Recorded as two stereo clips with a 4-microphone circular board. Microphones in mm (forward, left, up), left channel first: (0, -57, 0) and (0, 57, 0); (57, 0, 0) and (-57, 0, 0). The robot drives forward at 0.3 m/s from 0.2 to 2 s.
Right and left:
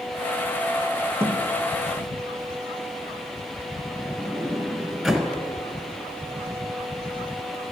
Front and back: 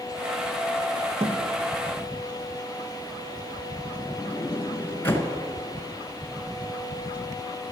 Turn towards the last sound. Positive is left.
turn(degrees=0)